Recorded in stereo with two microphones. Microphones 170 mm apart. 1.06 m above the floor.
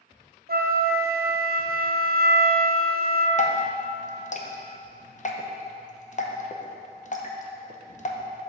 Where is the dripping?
45° left (ahead or behind), 0.7 m.